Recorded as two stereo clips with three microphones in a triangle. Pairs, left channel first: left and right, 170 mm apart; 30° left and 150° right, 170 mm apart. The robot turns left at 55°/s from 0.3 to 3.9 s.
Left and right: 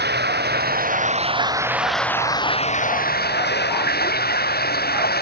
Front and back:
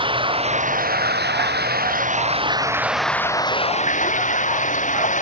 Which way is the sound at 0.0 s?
90° right.